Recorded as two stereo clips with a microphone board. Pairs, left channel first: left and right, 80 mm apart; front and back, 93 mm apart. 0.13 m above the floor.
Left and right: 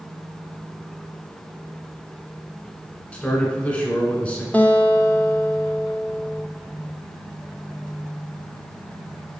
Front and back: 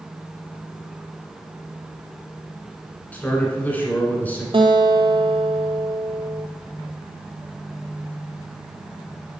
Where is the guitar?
160° left, 0.6 m.